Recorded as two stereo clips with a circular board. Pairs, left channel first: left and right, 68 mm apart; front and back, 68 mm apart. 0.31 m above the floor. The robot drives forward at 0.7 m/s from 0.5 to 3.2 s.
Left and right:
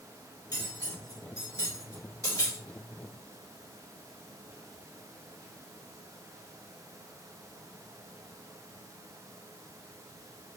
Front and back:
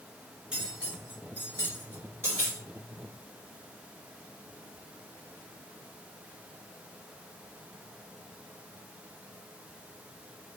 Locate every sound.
0.5 s cutlery clinking: 100° left, 2.5 m; by 2.6 s 130° left, 3 m